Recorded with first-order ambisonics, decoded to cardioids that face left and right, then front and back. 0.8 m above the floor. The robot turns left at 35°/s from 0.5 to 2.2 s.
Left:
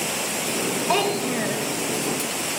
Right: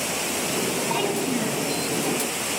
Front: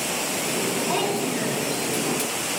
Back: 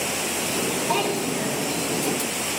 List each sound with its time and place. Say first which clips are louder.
0.9 s a child speaking: left 3 dB, back 1 dB; 100° left, 1.9 m; by 1.7 s 70° left, 1.9 m